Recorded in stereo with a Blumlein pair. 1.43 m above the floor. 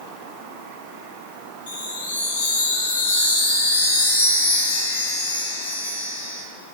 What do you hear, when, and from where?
1.7 s a chime: 65° left, 0.6 m